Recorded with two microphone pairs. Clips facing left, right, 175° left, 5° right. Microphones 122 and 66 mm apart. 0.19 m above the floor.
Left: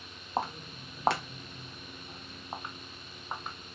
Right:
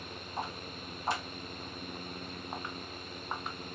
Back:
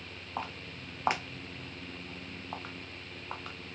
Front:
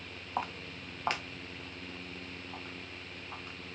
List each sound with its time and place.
0.4 s footsteps: 70° left, 0.8 m; by 3.6 s straight behind, 1.5 m